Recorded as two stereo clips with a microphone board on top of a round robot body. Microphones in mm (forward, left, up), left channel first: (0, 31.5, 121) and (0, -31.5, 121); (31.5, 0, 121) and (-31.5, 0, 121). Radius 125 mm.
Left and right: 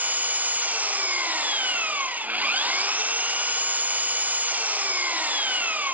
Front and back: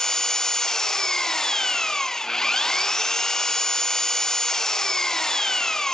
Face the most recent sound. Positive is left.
turn(degrees=-70)